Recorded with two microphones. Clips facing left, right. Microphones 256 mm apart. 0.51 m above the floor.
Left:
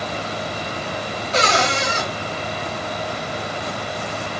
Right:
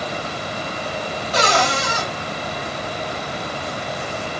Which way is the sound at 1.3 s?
25° left (ahead or behind).